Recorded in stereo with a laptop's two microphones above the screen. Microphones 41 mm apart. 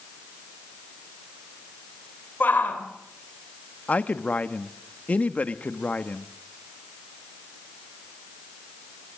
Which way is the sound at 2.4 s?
50° left (ahead or behind).